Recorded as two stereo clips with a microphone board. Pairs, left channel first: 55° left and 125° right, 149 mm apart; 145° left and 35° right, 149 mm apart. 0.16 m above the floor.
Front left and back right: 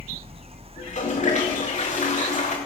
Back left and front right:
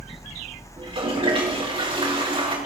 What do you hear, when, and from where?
0.8 s a toilet flushing: 20° left, 4 m